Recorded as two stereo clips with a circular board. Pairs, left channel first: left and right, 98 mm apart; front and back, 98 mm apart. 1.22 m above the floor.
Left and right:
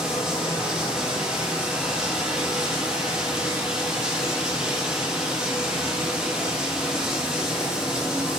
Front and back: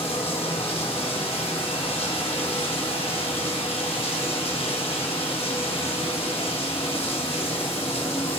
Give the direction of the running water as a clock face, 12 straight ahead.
12 o'clock.